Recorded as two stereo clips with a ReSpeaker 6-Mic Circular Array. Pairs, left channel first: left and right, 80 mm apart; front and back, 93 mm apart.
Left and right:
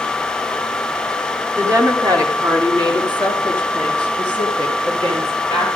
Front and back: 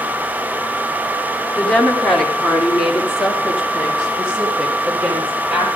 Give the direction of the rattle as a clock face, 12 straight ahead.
No rattle in this recording.